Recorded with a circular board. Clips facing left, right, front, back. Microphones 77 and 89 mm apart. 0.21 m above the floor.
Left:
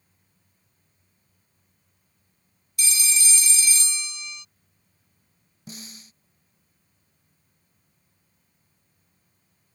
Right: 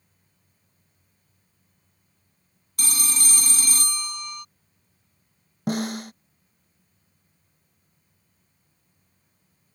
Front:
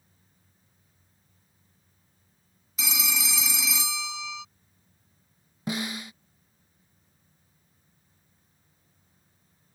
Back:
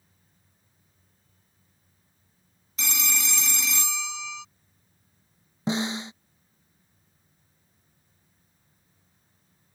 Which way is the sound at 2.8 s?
85° right.